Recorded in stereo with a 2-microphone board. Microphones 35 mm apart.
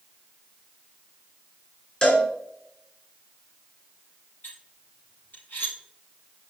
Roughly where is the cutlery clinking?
Left.